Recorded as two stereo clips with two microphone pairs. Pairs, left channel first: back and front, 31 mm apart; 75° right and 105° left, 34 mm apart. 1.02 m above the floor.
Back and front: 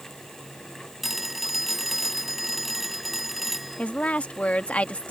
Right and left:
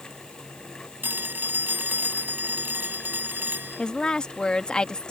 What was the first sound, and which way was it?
A phone ringing, 85° left.